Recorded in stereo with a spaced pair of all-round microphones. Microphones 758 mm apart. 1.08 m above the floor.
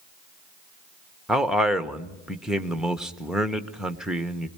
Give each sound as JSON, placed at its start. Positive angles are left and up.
{"t": 1.3, "sound": "a man speaking", "side_deg": 0, "distance_m": 1.0}